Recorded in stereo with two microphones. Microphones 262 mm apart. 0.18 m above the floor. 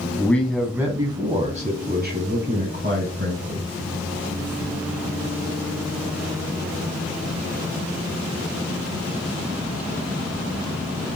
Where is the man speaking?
10° left (ahead or behind), 1.1 m; by 3.6 s 55° right (ahead or behind), 1.9 m.